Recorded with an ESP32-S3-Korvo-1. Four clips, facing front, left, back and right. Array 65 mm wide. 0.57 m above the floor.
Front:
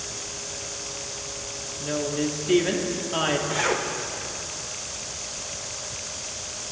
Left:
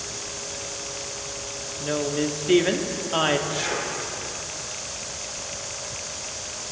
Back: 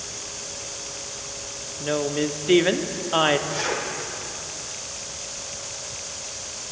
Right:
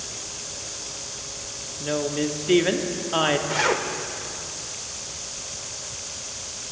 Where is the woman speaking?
175° right, 0.7 m.